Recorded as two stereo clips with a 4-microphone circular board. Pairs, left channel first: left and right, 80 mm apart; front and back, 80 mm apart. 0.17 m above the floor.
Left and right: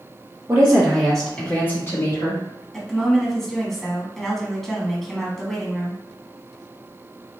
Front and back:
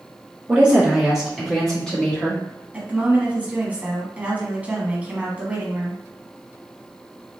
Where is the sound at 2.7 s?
170° left, 1.0 m.